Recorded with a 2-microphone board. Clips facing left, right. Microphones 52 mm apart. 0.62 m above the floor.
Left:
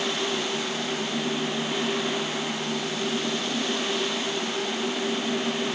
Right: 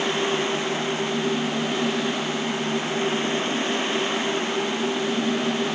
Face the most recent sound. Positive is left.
No sound to turn to.